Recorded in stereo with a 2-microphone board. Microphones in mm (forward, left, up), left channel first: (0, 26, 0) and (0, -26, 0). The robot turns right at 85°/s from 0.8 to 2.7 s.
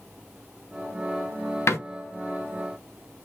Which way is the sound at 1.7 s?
60° left (ahead or behind).